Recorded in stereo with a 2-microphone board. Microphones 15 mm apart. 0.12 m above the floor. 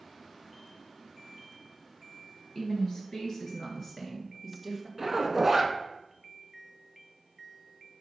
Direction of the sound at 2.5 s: 50° left (ahead or behind).